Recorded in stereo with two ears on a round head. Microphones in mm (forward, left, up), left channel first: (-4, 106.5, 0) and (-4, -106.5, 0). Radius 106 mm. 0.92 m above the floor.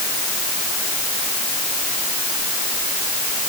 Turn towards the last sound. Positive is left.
No sound to turn to.